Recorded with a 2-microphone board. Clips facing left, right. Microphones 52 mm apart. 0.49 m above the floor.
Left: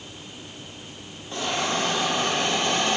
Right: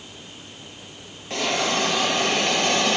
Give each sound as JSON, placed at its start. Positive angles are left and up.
{"t": 1.3, "sound": "a hiss", "side_deg": -85, "distance_m": 4.5}